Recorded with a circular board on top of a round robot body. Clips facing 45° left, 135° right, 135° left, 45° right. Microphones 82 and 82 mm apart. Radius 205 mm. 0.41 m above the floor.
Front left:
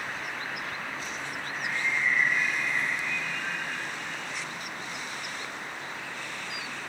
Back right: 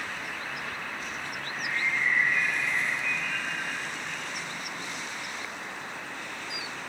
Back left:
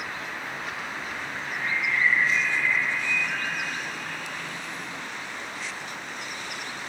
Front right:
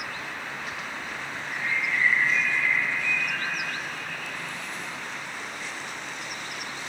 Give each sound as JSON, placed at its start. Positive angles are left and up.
{"t": 1.4, "sound": "a bird", "azimuth_deg": -145, "distance_m": 6.0}